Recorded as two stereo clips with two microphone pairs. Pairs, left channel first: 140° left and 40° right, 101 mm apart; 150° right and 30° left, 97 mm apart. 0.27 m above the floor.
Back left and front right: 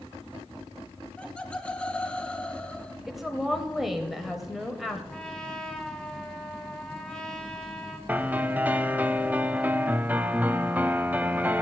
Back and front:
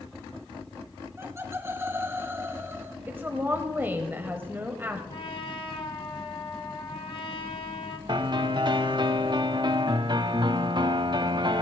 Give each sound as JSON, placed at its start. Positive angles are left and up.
{"t": 1.2, "sound": "laughter", "azimuth_deg": 70, "distance_m": 1.6}
{"t": 3.1, "sound": "a woman speaking", "azimuth_deg": 40, "distance_m": 1.2}
{"t": 5.1, "sound": "a trumpet", "azimuth_deg": -140, "distance_m": 1.6}
{"t": 8.1, "sound": "a piano", "azimuth_deg": 30, "distance_m": 0.6}